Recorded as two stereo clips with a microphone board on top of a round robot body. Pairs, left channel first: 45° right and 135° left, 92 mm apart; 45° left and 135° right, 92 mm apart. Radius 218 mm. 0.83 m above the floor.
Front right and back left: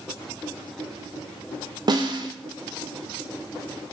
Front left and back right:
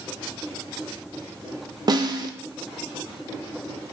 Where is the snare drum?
Straight behind, 0.6 m.